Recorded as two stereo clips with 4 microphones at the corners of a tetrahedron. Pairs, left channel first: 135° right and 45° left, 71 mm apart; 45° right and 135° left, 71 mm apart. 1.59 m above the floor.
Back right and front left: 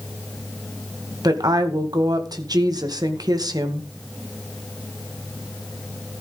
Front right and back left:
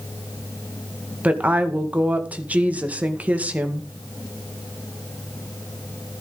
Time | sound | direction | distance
1.2 | a woman speaking | 65° left | 2.0 m